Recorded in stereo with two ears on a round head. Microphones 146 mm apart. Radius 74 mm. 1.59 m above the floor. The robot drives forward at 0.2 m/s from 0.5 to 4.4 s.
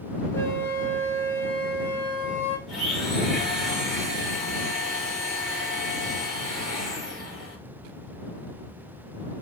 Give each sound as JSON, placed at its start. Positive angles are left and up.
{"t": 0.3, "sound": "a flute", "side_deg": 15, "distance_m": 1.5}
{"t": 2.7, "sound": "a blender", "side_deg": 0, "distance_m": 6.0}